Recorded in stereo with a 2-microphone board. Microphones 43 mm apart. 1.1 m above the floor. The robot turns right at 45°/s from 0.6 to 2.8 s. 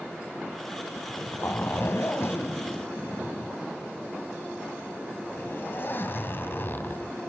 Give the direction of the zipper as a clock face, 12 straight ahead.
11 o'clock.